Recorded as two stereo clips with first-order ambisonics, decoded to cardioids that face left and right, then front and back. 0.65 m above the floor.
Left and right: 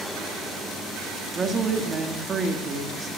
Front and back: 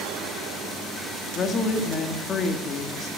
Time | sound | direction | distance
1.4 | a woman speaking | 40° right | 1.4 m